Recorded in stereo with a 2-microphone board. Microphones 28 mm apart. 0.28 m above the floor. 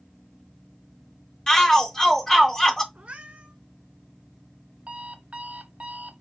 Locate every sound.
1.5 s a shout: 25° left (ahead or behind), 1.1 m
3.0 s a cat meowing: 50° right (ahead or behind), 1.5 m
4.9 s an alarm clock: 50° right (ahead or behind), 0.7 m